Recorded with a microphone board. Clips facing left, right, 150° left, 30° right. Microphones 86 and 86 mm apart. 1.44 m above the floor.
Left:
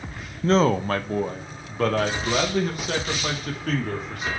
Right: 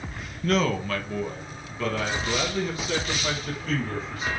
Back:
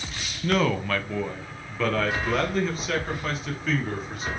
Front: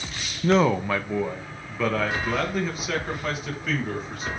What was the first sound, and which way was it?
A man speaking, 30° left.